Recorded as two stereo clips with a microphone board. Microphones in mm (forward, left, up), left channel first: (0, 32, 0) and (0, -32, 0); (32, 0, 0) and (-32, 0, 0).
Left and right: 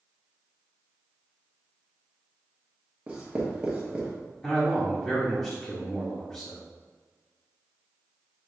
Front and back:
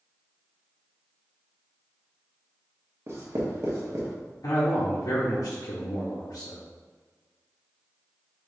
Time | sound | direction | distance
3.1 | writing | 160° right | 1.1 m
4.4 | a man speaking | 15° left | 1.1 m